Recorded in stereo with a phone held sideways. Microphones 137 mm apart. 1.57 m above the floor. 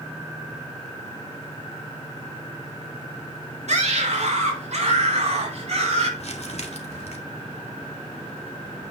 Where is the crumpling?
55° left (ahead or behind), 1.9 m.